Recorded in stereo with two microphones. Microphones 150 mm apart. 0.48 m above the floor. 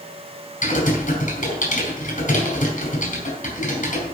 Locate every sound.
0.6 s typing on a keyboard: 60° left (ahead or behind), 4.5 m